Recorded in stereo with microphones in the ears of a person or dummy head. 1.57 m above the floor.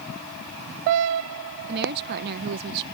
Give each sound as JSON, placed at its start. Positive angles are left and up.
{"t": 1.7, "sound": "a woman speaking", "side_deg": -55}